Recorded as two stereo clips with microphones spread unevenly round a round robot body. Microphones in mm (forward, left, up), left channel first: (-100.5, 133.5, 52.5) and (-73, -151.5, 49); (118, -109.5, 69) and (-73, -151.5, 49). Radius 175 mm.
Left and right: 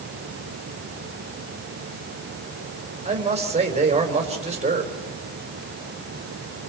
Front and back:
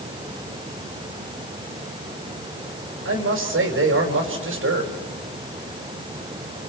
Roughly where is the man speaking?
Behind right.